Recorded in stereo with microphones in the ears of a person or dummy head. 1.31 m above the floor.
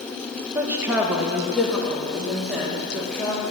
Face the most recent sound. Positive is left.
turn(degrees=0)  # may be behind; listen again after turning